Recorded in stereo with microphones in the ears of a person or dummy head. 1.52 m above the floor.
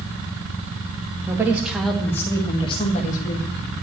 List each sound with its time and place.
1.3 s a woman speaking: 15° right (ahead or behind), 2 m; by 3.5 s 50° left (ahead or behind), 2.5 m